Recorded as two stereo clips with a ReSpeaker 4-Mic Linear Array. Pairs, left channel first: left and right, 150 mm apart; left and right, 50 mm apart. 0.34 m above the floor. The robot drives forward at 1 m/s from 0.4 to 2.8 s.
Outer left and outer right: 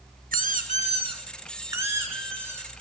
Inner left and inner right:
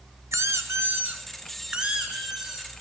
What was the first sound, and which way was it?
A squeak, 75° right (ahead or behind).